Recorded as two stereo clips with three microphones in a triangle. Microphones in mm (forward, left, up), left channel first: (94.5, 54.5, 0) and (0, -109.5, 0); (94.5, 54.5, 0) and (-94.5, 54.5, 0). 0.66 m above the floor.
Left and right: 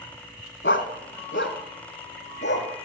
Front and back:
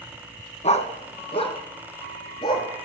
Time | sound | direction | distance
0.6 | a dog barking | 55° left | 2 m